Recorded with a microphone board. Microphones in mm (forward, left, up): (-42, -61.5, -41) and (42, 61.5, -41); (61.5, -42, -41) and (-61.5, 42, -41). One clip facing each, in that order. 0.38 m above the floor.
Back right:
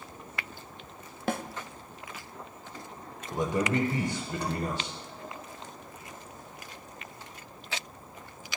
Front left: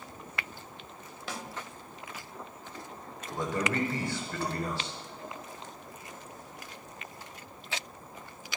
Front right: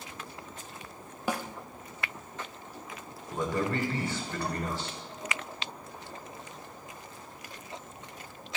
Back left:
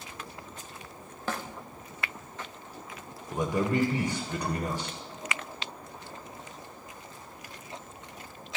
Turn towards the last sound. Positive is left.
turn(degrees=-165)